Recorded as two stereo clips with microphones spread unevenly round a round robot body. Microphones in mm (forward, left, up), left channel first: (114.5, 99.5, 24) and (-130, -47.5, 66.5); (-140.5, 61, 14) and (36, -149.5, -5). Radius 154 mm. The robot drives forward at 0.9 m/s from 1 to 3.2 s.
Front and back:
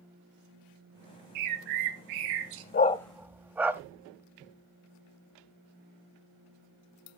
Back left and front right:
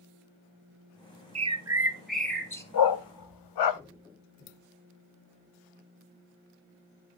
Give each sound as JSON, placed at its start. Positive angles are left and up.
{"t": 1.4, "sound": "a bird", "azimuth_deg": -115, "distance_m": 1.0}
{"t": 2.7, "sound": "a dog barking", "azimuth_deg": 90, "distance_m": 0.6}